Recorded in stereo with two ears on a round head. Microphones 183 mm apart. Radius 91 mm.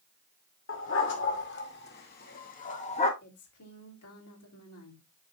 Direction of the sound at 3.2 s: 85° left.